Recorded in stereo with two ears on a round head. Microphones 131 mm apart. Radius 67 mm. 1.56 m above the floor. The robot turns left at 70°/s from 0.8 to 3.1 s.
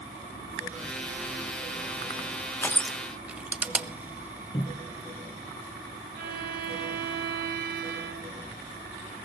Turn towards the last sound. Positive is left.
turn(degrees=-65)  # may be behind; listen again after turning